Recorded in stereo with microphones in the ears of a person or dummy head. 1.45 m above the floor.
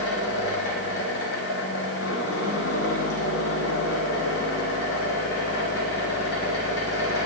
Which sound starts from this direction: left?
A fan, at 0.0 s.